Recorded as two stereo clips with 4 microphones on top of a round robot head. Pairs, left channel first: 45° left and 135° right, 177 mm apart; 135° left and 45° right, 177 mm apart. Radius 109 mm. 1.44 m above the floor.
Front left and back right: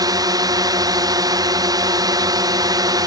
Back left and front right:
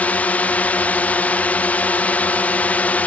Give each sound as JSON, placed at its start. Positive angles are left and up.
{"t": 0.0, "sound": "a drone", "azimuth_deg": -155}